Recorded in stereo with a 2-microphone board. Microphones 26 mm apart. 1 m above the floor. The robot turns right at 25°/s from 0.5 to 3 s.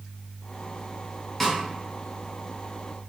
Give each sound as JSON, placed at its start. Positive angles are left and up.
{"t": 1.4, "sound": "a snare drum", "side_deg": 5, "distance_m": 0.8}